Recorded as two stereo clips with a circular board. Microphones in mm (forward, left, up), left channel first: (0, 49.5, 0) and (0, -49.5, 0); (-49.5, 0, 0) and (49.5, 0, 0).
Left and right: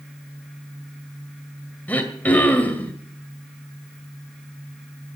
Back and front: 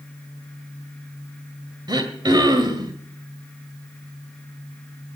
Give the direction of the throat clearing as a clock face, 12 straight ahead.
11 o'clock.